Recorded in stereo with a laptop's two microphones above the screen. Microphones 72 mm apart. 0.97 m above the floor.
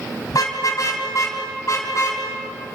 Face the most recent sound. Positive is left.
turn(degrees=50)  # may be behind; listen again after turning